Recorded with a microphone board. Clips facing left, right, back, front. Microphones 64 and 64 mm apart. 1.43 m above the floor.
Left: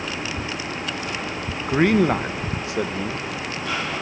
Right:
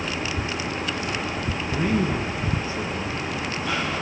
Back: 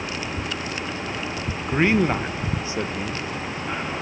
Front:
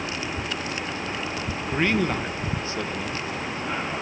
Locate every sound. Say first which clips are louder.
1.7 s a man speaking: left 7 dB, back 4 dB; 110° left, 1.4 m